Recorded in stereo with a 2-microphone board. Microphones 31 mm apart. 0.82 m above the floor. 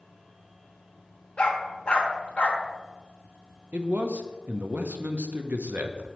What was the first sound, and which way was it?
A dog barking, 35° left (ahead or behind).